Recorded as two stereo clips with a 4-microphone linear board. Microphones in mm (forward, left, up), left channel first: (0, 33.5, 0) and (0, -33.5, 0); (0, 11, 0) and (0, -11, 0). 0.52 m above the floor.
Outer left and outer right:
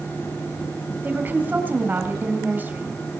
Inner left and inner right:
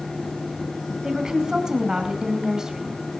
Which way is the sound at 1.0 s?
25° right (ahead or behind).